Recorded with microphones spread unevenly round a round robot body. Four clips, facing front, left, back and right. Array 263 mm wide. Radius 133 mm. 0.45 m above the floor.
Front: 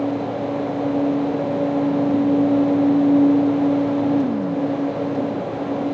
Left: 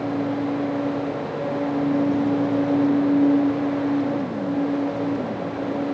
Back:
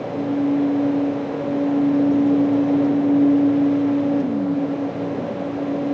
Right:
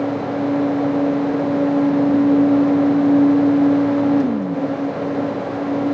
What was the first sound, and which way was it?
Only background noise.